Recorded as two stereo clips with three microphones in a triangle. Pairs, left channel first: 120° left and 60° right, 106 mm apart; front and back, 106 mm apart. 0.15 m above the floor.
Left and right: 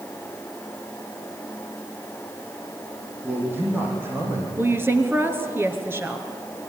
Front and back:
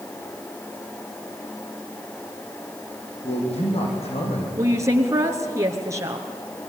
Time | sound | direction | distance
3.2 | a man speaking | 10° left | 8.5 m
4.6 | a woman speaking | 125° right | 2.5 m